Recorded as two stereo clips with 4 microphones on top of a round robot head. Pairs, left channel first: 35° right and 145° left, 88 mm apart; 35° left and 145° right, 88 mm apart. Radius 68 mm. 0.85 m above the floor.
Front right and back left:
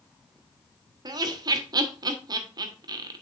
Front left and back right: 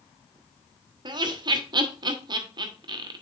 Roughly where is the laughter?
Behind.